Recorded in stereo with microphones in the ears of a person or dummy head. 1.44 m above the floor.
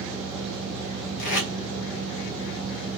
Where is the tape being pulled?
65° left (ahead or behind), 1.3 m.